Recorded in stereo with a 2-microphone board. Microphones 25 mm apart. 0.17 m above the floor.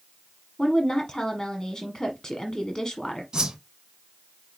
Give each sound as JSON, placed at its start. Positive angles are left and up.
{"t": 0.6, "sound": "a woman speaking", "side_deg": 25, "distance_m": 1.2}
{"t": 3.3, "sound": "a whoosh", "side_deg": -30, "distance_m": 1.9}